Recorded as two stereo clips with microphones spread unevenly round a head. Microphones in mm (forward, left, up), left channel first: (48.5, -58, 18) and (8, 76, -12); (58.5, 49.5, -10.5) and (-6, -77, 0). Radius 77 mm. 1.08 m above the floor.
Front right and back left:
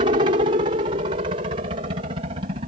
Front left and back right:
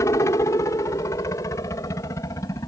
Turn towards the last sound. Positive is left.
turn(degrees=125)